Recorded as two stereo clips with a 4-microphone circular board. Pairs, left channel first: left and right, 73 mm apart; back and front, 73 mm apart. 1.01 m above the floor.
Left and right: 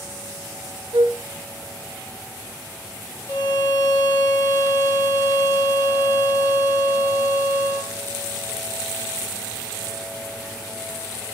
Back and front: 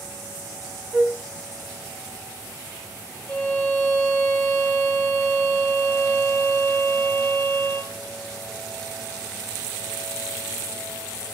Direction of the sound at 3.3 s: 130° left.